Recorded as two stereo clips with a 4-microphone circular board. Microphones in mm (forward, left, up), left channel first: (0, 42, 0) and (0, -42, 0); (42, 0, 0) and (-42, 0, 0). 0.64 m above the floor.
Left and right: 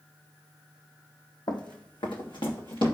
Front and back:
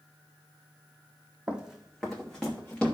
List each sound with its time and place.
1.5 s running footsteps: 105° left, 1.3 m; by 2.9 s 80° left, 3 m